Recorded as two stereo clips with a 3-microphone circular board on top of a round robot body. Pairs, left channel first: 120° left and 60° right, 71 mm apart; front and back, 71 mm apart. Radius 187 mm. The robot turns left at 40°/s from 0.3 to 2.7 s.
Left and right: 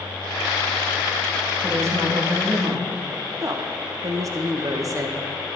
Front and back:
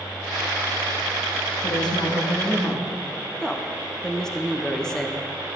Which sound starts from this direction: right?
A woman speaking, at 3.4 s.